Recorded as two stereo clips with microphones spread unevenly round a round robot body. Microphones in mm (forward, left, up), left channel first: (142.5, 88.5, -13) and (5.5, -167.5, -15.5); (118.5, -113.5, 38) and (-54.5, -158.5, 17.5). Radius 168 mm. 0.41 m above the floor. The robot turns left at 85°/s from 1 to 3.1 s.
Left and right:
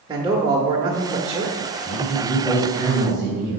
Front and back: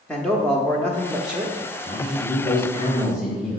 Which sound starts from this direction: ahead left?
A man speaking, at 1.9 s.